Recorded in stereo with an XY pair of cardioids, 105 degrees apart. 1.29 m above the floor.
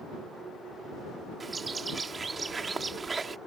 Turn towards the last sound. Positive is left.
turn(degrees=-30)